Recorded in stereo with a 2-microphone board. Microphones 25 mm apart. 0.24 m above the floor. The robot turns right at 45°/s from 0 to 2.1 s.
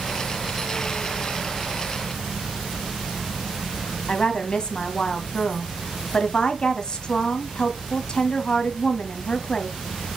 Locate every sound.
4.1 s a woman speaking: 35° left (ahead or behind), 1.3 m